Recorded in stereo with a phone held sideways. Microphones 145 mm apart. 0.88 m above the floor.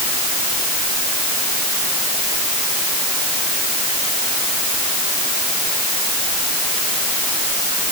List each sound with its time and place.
Only background noise.